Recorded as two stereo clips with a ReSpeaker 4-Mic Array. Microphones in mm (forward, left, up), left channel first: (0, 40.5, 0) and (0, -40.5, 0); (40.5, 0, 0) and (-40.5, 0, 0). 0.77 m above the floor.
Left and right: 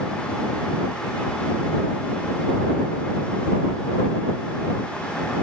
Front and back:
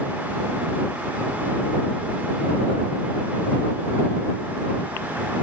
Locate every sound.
Only background noise.